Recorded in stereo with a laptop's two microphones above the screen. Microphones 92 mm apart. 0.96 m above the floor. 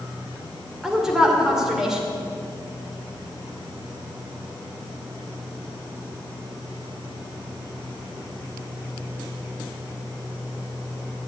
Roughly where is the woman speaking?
Centre.